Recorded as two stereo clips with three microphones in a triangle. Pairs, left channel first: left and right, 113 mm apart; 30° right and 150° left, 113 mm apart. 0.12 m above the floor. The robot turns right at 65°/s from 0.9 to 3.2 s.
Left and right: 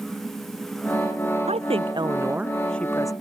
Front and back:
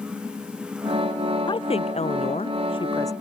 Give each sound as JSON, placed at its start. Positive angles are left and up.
{"t": 1.5, "sound": "a woman speaking", "azimuth_deg": -75}